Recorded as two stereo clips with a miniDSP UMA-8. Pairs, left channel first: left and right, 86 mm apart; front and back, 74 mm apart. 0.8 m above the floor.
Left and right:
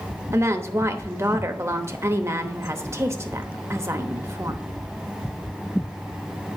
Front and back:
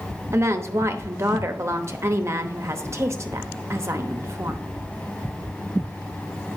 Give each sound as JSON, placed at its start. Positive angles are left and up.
{"t": 0.3, "sound": "a woman speaking", "azimuth_deg": -140, "distance_m": 0.9}